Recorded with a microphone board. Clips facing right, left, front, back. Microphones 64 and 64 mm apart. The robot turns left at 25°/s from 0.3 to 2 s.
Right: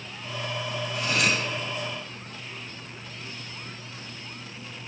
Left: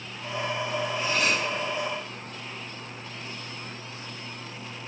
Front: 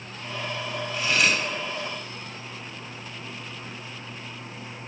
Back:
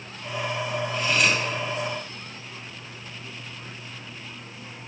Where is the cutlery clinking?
80° right, 2 m; by 1.4 s 90° right, 2 m.